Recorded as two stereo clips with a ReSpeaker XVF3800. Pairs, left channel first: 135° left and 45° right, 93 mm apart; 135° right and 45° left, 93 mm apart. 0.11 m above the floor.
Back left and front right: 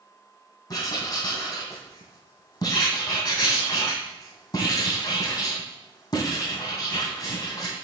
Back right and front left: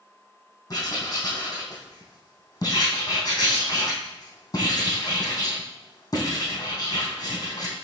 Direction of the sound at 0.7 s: 175° left.